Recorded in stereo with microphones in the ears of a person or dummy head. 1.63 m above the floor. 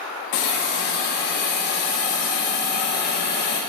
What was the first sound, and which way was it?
A hiss, 55° left (ahead or behind).